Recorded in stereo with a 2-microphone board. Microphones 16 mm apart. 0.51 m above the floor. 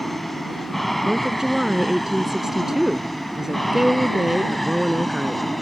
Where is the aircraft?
Centre (ahead or behind).